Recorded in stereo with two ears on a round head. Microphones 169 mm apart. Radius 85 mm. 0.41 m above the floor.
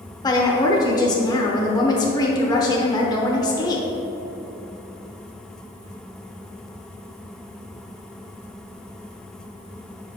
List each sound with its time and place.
0.2 s a woman speaking: 20° left (ahead or behind), 0.8 m